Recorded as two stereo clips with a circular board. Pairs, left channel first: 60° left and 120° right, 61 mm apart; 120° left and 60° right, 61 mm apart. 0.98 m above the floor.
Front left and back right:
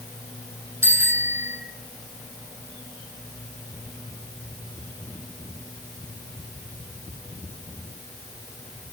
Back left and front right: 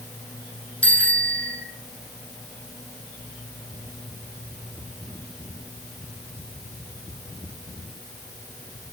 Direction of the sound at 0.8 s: 170° right.